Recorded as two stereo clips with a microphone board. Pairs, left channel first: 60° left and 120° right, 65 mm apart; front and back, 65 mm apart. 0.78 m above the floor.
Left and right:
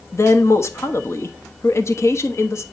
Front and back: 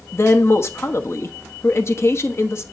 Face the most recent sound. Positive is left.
turn(degrees=35)